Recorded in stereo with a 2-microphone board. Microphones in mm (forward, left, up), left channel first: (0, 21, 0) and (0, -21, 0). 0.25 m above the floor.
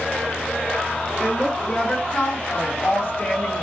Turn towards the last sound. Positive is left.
turn(degrees=25)  # may be behind; listen again after turning